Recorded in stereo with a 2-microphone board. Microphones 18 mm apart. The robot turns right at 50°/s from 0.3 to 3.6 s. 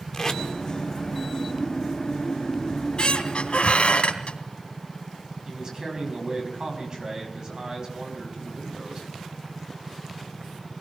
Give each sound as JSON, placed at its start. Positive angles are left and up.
{"t": 0.1, "sound": "tape being pulled", "side_deg": 40, "distance_m": 2.0}
{"t": 2.7, "sound": "a squeak", "azimuth_deg": 40, "distance_m": 3.0}
{"t": 5.5, "sound": "a man speaking", "side_deg": -40, "distance_m": 5.5}